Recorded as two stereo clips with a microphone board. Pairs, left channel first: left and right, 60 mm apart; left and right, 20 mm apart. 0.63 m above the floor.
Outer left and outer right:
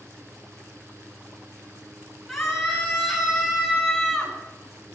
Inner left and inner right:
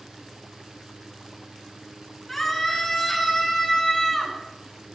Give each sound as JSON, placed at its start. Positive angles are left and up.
{"t": 2.3, "sound": "a scream", "side_deg": -5, "distance_m": 8.0}